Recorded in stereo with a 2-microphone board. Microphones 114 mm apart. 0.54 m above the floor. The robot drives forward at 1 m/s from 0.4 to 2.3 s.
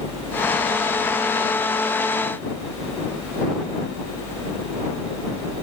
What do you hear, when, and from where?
Only background noise.